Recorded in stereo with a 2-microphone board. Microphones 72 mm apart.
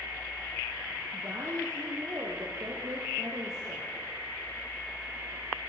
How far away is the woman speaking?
About 3.5 m.